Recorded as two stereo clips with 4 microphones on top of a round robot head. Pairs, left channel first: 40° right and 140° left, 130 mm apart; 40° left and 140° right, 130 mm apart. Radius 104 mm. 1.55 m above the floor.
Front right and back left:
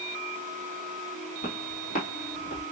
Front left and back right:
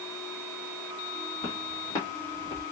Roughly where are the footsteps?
Ahead.